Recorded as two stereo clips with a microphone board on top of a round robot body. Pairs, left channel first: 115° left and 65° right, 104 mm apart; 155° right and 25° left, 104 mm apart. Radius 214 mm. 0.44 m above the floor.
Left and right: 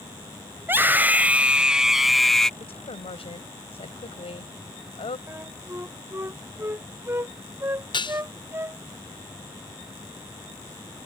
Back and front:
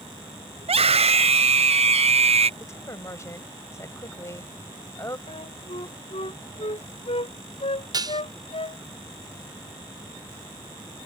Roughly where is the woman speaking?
Behind left.